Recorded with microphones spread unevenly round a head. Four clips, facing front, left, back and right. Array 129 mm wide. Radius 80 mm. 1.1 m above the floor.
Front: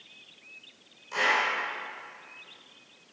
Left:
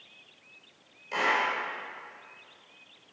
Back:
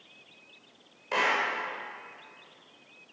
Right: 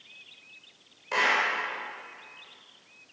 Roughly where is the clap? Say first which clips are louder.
Right 1 dB, even; behind.